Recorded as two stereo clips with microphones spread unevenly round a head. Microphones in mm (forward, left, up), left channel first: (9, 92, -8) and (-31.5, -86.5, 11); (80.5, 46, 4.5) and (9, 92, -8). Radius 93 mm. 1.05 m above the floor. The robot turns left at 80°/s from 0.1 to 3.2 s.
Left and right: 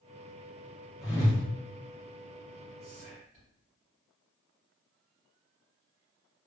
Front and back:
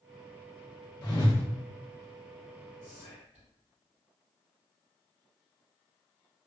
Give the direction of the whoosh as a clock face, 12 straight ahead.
12 o'clock.